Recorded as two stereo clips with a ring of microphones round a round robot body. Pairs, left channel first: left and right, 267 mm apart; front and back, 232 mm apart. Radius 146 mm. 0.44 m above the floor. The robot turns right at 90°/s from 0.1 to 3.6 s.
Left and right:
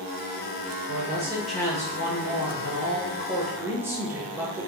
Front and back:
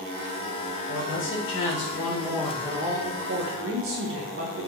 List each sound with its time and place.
0.9 s a man speaking: 55° right, 1.3 m; by 4.7 s 170° right, 1.3 m